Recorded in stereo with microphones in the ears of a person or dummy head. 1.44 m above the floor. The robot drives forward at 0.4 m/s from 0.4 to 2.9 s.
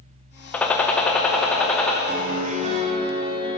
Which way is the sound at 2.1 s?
50° right (ahead or behind).